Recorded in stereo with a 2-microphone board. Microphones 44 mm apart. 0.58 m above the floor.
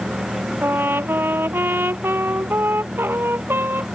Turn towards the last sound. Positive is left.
turn(degrees=-55)  # may be behind; listen again after turning